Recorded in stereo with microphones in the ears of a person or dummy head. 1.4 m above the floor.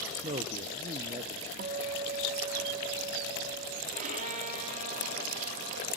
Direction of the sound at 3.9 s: 35° right (ahead or behind).